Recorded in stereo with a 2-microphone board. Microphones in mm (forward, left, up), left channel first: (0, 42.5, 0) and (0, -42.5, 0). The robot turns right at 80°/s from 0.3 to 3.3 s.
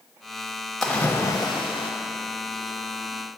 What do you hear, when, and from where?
0.8 s a splash: straight ahead, 0.9 m; by 1.9 s 90° left, 0.9 m